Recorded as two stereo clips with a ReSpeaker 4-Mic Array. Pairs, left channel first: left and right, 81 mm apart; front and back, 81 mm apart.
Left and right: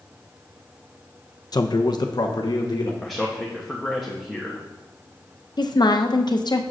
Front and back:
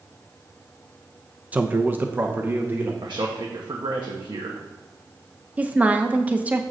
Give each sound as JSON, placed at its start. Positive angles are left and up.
{"t": 1.5, "sound": "a man speaking", "azimuth_deg": 110, "distance_m": 0.5}
{"t": 3.0, "sound": "a man speaking", "azimuth_deg": 180, "distance_m": 1.1}
{"t": 5.6, "sound": "a woman speaking", "azimuth_deg": 110, "distance_m": 0.8}